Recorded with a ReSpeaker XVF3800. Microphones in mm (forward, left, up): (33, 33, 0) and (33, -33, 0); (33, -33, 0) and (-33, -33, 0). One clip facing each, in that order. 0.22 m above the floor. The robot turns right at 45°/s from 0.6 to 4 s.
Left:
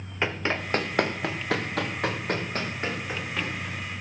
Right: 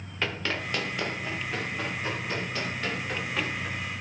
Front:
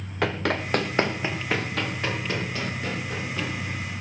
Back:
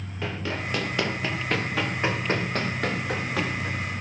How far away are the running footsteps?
About 2 m.